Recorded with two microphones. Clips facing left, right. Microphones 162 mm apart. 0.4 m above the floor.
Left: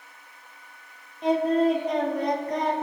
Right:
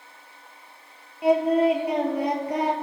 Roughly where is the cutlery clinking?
No cutlery clinking in this recording.